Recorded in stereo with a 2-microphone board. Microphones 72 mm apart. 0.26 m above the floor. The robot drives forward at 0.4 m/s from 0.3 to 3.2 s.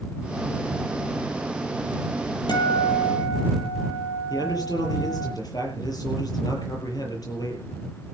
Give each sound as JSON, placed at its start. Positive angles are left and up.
{"t": 2.5, "sound": "a guitar", "side_deg": 80, "distance_m": 6.0}
{"t": 4.3, "sound": "a man speaking", "side_deg": 60, "distance_m": 7.0}